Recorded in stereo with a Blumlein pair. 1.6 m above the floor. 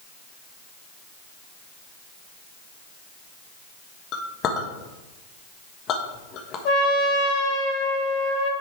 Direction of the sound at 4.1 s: 30° left.